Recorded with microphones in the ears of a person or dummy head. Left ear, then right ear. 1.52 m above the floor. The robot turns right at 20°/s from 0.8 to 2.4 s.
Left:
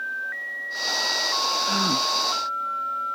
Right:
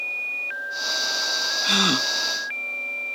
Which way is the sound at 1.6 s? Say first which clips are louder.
Right 3 dB; 80° right.